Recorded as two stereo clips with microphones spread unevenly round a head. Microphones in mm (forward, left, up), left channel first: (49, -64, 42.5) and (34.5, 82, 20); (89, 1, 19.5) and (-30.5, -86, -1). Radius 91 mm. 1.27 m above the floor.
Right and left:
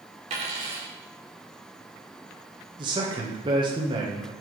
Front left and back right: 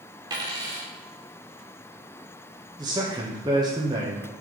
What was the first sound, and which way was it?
A dropped coin, 150° left.